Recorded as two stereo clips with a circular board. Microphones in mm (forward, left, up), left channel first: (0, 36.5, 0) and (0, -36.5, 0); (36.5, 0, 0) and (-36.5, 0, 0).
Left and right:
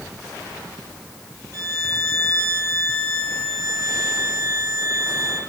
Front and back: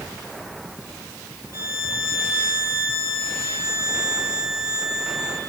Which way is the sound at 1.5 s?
145° right.